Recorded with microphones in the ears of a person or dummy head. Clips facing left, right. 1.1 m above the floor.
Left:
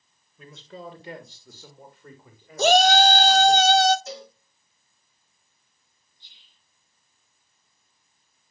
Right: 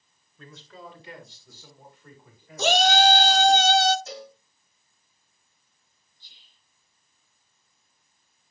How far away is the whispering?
About 1.5 m.